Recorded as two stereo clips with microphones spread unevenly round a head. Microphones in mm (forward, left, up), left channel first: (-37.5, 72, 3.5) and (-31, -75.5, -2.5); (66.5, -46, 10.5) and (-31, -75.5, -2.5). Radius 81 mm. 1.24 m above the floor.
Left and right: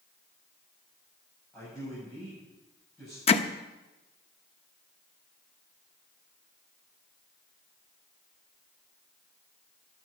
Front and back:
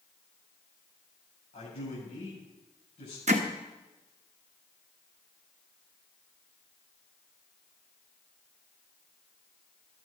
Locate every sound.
1.5 s a man speaking: 5° left, 7.5 m
3.3 s hammering: 145° left, 1.0 m